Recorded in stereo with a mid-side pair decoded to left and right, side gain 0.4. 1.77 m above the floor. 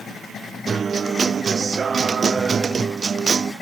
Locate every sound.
0.7 s a guitar: 45° right